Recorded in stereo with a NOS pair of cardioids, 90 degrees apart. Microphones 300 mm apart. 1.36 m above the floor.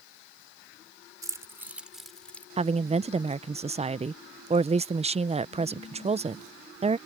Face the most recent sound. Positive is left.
turn(degrees=-20)